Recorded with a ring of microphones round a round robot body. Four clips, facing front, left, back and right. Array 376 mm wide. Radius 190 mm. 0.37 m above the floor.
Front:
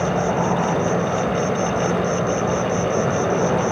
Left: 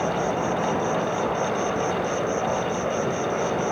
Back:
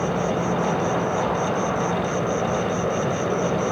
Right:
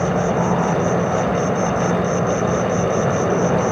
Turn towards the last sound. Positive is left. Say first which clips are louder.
# right 5 dB, front 3 dB
turn(degrees=-80)